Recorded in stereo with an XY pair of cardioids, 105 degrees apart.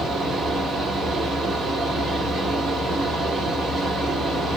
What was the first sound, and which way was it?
A fan, 45° right.